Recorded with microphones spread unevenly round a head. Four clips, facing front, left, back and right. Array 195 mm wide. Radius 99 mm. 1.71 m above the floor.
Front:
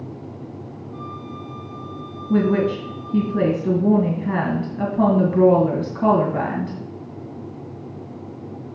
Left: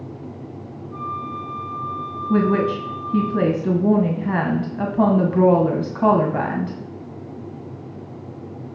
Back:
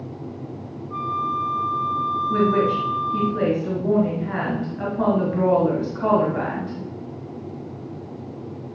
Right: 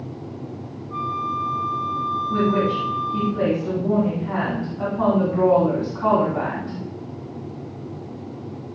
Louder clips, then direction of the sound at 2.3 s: Left 3 dB, front 2 dB; 60° left.